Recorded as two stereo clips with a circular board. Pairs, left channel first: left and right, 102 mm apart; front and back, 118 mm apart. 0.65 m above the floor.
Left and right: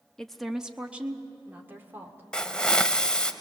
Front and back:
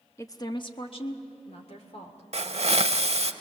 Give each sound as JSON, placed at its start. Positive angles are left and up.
{"t": 0.2, "sound": "a woman speaking", "azimuth_deg": 15, "distance_m": 0.8}
{"t": 2.3, "sound": "a hiss", "azimuth_deg": 170, "distance_m": 0.7}